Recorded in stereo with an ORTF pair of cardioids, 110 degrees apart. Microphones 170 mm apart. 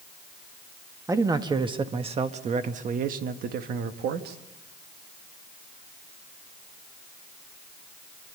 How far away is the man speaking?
About 1.6 m.